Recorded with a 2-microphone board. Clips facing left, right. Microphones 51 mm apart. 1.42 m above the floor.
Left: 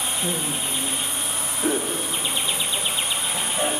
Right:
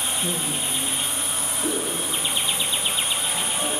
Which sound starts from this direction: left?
Laughter, at 0.2 s.